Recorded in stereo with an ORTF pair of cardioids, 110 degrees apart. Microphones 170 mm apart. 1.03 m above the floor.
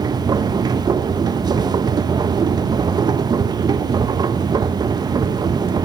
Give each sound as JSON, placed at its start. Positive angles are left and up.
{"t": 0.0, "sound": "a machine running", "azimuth_deg": -25, "distance_m": 0.8}